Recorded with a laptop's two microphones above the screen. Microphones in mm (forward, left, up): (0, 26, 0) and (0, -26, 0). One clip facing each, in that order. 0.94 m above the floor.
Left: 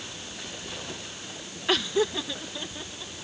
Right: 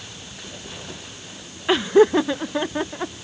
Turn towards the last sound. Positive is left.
turn(degrees=-70)  # may be behind; listen again after turning